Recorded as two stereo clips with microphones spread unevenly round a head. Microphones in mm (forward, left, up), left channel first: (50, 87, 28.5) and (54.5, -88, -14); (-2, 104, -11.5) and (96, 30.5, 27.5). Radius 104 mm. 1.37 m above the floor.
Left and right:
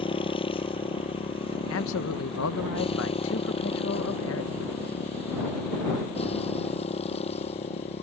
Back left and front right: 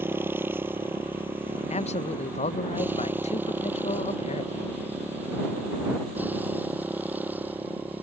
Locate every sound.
0.0 s a motorcycle: 35° left; by 8.0 s 40° left
1.7 s a man speaking: 115° left